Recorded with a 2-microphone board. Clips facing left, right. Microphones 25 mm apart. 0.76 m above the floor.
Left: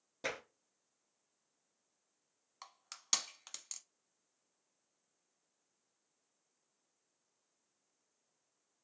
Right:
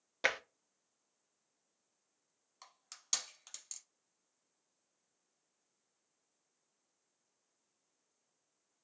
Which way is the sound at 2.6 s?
25° left (ahead or behind).